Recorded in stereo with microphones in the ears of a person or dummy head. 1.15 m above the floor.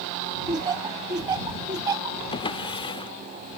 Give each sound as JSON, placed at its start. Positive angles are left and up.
{"t": 0.5, "sound": "laughter", "side_deg": -15}
{"t": 2.3, "sound": "a drawer", "side_deg": 30}